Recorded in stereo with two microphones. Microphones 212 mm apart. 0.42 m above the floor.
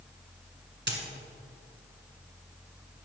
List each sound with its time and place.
0.9 s a dropped coin: 55° right (ahead or behind), 1.9 m